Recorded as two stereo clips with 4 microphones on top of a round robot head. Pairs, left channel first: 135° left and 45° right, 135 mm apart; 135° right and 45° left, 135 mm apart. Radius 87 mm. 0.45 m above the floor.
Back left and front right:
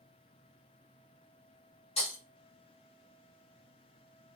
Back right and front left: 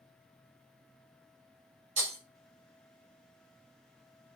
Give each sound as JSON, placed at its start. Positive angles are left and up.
{"t": 2.0, "sound": "breaking glass", "azimuth_deg": 85, "distance_m": 1.9}